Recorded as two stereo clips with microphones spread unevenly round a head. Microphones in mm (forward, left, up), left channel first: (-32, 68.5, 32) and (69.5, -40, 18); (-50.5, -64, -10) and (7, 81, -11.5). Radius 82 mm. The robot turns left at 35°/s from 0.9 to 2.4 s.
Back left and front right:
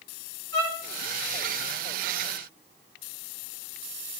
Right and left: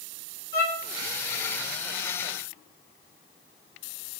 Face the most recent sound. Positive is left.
turn(degrees=-95)